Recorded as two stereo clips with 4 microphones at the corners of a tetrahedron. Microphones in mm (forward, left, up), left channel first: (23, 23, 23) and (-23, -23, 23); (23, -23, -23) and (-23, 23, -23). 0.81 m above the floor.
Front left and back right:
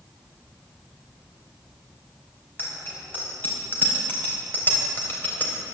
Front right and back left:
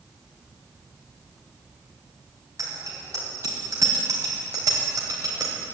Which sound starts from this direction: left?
A bicycle bell, at 2.6 s.